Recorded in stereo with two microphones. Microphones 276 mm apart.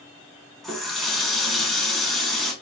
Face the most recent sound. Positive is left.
turn(degrees=0)  # may be behind; listen again after turning